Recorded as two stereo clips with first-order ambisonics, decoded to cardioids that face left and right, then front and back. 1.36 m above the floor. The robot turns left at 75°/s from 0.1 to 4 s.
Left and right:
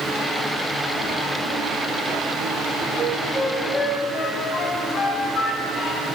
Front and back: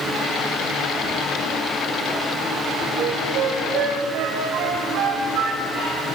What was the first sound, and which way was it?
A flute, 135° right.